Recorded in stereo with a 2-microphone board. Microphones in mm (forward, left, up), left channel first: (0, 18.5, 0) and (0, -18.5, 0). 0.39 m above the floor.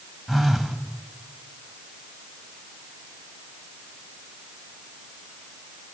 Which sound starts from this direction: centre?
A phone buzzing, at 0.3 s.